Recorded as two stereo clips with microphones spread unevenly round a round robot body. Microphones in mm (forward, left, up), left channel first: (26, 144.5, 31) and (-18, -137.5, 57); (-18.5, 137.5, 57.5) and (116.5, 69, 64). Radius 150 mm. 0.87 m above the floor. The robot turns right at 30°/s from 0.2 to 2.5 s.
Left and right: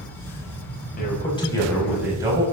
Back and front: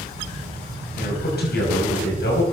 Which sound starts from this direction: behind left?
A man speaking, at 1.0 s.